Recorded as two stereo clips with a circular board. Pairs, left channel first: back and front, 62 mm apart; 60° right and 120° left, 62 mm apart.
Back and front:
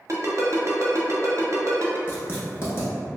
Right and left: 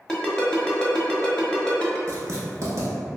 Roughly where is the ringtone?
Ahead.